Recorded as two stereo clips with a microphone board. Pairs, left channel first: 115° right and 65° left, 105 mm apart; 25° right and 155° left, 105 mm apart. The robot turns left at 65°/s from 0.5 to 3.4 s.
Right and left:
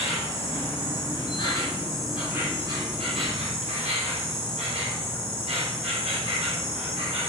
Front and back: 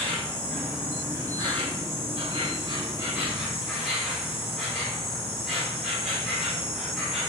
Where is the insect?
100° right, 5.5 m; by 7.3 s 70° left, 5.5 m.